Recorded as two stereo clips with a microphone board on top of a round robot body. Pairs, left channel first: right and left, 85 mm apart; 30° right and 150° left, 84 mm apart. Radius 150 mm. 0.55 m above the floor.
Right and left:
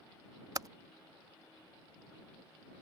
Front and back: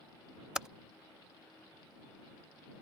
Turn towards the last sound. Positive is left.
turn(degrees=70)